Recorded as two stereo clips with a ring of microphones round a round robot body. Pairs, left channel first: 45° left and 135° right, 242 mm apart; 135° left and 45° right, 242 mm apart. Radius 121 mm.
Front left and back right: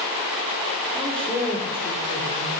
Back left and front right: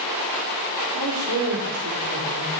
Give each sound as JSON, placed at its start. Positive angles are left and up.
{"t": 0.9, "sound": "a man speaking", "azimuth_deg": -50, "distance_m": 1.5}